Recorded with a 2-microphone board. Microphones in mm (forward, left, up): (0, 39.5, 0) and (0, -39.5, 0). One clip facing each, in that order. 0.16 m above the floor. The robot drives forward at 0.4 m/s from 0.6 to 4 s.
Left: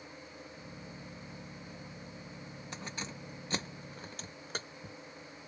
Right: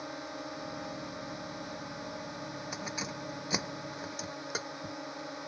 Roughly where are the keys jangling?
Centre.